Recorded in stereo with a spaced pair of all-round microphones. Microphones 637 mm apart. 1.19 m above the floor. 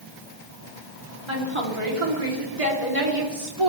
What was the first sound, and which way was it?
A woman speaking, 45° right (ahead or behind).